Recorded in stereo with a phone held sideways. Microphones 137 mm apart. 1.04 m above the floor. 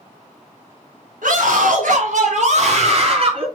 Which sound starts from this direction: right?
A scream, at 1.2 s.